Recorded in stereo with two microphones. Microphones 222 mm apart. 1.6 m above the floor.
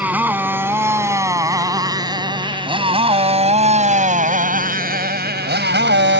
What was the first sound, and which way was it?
A motorcycle, 5° right (ahead or behind).